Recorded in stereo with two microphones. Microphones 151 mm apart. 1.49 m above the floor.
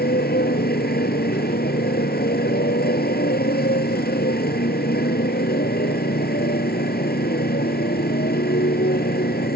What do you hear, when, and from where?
0.0 s a motorcycle: 85° left